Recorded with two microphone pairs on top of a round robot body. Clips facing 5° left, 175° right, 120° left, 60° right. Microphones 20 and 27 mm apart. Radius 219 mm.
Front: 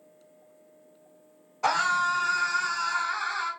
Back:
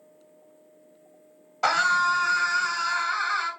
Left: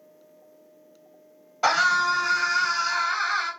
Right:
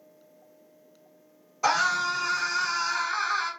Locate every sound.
1.6 s a scream: 150° left, 1.8 m